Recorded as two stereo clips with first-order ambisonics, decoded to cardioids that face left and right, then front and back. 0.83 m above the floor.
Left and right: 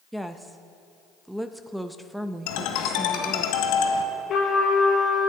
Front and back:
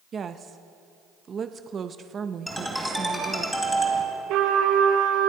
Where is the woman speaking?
175° right, 0.5 m.